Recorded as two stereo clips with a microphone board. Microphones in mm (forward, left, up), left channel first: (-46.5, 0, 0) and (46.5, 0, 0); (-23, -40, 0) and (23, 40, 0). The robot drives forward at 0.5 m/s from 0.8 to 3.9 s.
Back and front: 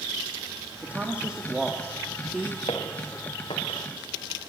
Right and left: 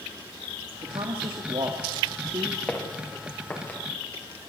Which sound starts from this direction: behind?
Footsteps, at 2.7 s.